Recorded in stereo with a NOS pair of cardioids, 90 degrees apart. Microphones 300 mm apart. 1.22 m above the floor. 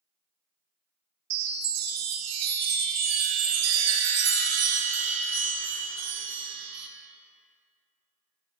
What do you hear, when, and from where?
1.3 s a chime: 60° right, 0.6 m